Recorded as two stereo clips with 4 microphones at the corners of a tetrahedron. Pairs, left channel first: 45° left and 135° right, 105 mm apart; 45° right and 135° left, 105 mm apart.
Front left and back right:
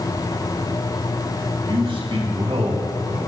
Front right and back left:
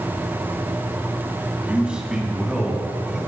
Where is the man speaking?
150° right, 2.5 m; by 3.2 s 135° right, 3 m.